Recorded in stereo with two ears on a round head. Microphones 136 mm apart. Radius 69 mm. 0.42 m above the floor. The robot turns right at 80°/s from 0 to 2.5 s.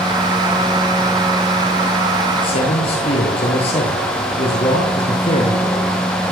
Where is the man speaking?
30° left (ahead or behind), 9.5 m; by 6.3 s 35° left (ahead or behind), 9.5 m.